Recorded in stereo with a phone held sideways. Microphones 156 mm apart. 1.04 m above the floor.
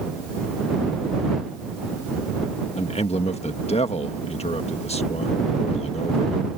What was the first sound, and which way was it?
A man speaking, 45° left (ahead or behind).